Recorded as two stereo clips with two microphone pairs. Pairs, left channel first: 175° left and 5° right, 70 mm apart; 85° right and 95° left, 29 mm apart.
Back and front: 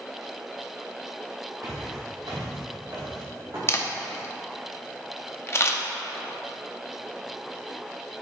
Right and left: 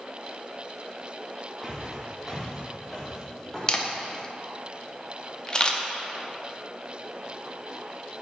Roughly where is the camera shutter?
Behind right.